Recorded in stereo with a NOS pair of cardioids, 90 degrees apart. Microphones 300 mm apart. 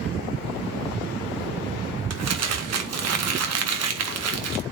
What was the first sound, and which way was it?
Crumpling, 55° right.